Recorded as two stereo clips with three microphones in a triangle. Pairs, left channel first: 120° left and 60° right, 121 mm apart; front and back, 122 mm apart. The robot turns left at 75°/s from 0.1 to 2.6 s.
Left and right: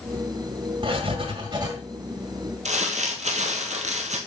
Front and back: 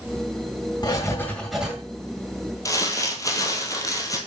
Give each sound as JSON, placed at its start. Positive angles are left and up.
{"t": 0.8, "sound": "writing", "azimuth_deg": -35, "distance_m": 2.0}
{"t": 2.6, "sound": "crumpling", "azimuth_deg": -60, "distance_m": 1.7}